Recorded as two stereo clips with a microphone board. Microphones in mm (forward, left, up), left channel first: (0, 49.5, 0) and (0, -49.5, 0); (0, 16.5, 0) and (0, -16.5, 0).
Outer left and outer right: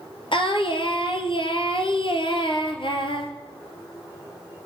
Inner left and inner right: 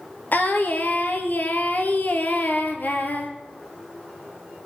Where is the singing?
60° left (ahead or behind), 1.9 m.